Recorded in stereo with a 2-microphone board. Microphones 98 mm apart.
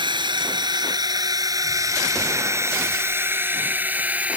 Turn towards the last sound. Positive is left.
turn(degrees=-15)  # may be behind; listen again after turning